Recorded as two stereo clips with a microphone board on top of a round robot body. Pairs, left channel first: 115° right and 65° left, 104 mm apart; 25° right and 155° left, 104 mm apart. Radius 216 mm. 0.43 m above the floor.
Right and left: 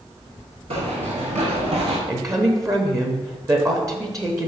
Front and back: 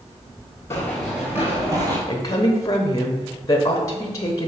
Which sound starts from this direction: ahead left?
Running footsteps, at 0.7 s.